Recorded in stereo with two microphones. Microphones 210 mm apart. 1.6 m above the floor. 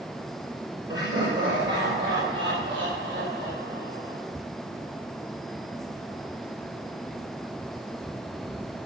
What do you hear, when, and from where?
0.9 s laughter: 70° right (ahead or behind), 5 m; by 4.2 s 75° right (ahead or behind), 9.5 m